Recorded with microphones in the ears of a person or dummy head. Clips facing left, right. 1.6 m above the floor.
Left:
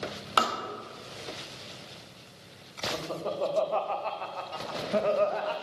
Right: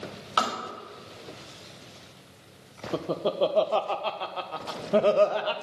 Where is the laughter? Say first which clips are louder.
Right 7 dB; 45° right (ahead or behind), 0.7 m.